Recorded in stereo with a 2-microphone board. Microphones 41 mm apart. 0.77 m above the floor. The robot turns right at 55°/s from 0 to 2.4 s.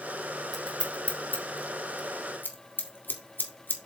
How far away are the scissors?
About 1.5 m.